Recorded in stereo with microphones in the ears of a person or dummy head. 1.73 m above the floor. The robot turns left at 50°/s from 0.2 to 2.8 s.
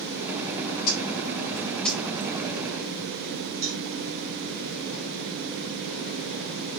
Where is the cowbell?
60° right (ahead or behind), 1.2 m.